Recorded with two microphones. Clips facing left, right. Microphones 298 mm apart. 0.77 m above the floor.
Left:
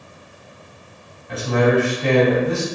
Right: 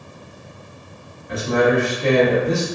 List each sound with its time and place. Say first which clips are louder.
1.3 s a man speaking: even; 20° right (ahead or behind), 1.6 m